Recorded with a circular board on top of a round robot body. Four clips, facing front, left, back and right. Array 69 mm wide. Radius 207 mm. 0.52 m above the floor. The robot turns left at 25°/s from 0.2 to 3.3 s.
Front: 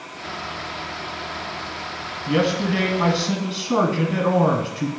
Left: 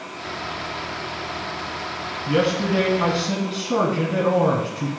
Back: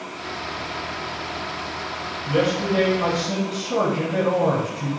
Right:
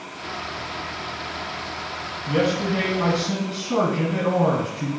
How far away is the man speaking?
About 1.3 m.